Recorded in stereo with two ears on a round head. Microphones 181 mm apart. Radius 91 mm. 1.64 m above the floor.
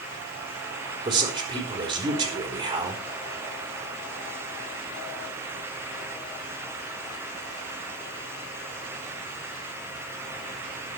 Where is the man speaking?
25° right (ahead or behind), 4.5 m.